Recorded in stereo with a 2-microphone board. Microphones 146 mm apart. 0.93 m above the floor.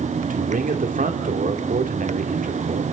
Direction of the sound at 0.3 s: 70° right (ahead or behind).